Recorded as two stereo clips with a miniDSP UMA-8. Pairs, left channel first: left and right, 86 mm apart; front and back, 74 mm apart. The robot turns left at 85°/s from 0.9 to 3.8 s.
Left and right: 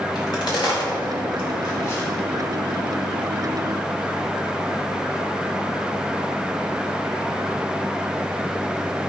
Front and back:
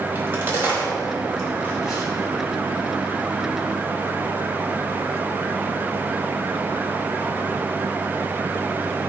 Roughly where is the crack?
Behind left.